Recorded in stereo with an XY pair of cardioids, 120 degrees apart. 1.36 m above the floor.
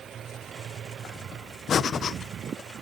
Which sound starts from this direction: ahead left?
Breathing, at 1.7 s.